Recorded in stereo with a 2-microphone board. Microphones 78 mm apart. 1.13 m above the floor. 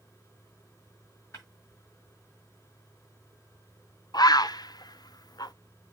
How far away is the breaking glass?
About 7 m.